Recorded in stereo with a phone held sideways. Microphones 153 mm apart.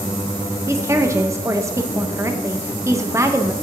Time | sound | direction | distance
0.7 | a woman speaking | 20° right (ahead or behind) | 0.8 m